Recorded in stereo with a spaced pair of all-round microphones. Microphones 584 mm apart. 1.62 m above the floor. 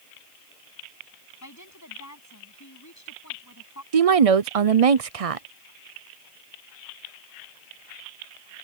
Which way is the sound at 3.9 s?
70° right (ahead or behind).